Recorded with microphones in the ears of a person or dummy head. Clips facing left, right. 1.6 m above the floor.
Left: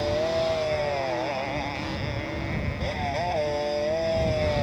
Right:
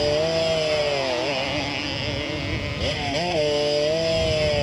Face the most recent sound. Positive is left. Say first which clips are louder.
# right 4 dB
turn(degrees=-55)  # may be behind; listen again after turning